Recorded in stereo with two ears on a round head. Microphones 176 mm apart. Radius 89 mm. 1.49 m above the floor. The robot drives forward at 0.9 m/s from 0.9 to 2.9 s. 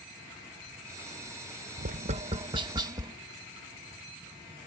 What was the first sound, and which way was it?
Tapping, 45° right (ahead or behind).